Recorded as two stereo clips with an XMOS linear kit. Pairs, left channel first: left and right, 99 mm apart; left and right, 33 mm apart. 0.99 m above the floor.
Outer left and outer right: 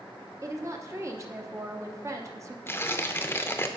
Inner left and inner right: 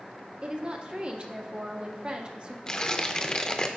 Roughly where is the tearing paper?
Left.